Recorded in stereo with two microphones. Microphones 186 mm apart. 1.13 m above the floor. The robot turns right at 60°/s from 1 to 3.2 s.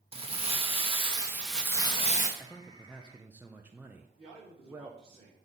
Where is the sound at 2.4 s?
150° left, 0.5 m; by 5.2 s 160° right, 0.5 m.